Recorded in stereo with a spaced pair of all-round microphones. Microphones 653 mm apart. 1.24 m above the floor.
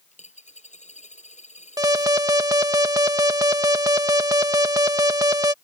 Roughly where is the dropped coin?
Centre.